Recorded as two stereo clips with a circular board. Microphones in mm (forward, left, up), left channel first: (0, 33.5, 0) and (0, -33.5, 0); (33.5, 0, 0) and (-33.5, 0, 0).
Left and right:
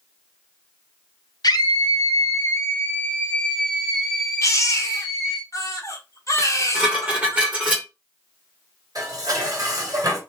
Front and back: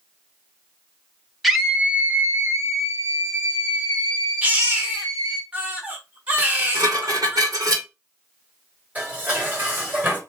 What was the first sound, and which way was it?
A scream, 95° left.